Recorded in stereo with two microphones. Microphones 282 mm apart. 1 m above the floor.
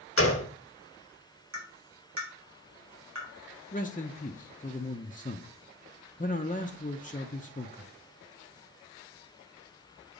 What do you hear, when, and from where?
0.2 s a gunshot: 50° left (ahead or behind), 1.5 m
1.5 s tapping: 70° right (ahead or behind), 4 m
3.7 s a man speaking: 30° left (ahead or behind), 0.6 m